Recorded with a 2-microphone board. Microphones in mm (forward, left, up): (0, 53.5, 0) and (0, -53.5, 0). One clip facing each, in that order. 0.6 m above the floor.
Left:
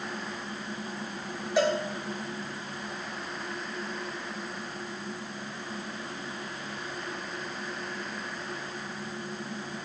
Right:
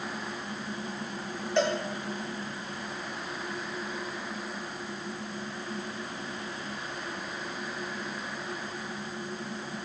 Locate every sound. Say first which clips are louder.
1.6 s a cowbell: left 2 dB; 5° left (ahead or behind), 3 m